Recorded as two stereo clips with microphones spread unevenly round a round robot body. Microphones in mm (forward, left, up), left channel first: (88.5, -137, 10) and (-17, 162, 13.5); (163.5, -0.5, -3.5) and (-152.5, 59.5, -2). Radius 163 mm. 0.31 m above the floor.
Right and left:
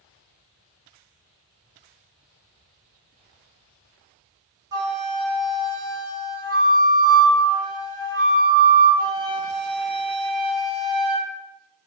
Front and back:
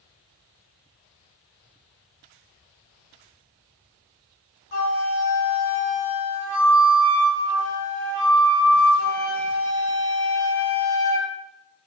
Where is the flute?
35° left, 0.9 m.